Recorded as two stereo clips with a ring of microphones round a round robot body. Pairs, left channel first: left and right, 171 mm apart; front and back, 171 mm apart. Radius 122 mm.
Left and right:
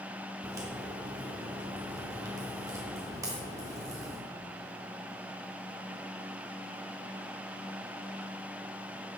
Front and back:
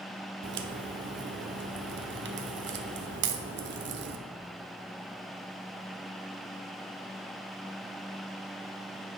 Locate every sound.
0.4 s a crack: 165° right, 0.5 m